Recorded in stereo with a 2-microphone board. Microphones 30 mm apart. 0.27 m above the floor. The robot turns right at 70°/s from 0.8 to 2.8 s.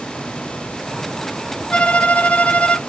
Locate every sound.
1.7 s a violin: 50° left, 1.0 m; by 2.8 s 130° left, 1.0 m